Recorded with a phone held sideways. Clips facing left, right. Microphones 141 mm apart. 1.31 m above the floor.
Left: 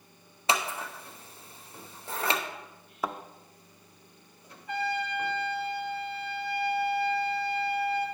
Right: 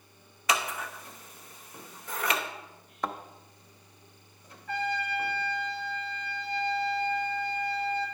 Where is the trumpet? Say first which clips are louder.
Left 1 dB; 15° left (ahead or behind), 3.5 m.